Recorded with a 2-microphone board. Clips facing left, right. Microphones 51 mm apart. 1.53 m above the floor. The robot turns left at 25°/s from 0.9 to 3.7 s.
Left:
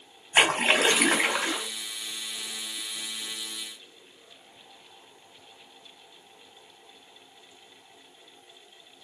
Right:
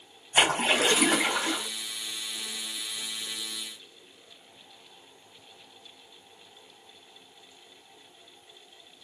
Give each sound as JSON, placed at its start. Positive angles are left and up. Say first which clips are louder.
{"t": 0.3, "sound": "a splash", "louder": "left 2 dB", "side_deg": 55, "distance_m": 2.0}